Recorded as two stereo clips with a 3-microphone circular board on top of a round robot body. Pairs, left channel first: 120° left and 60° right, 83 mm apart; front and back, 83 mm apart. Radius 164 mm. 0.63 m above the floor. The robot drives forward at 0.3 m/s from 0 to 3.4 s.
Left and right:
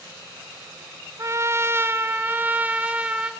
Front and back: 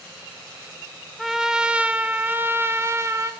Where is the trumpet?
95° right, 1.0 m; by 3.3 s 135° right, 1.2 m.